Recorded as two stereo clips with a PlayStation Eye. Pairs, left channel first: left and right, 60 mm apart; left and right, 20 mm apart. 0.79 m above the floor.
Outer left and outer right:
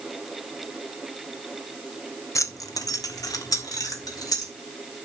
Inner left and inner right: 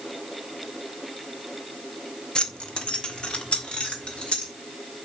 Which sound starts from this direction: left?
Keys jangling, at 2.4 s.